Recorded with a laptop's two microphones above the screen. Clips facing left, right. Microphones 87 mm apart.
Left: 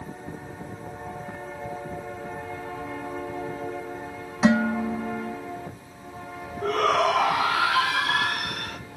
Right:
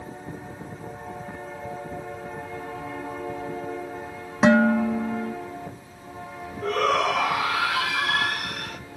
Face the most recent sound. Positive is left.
turn(degrees=40)  # may be behind; listen again after turning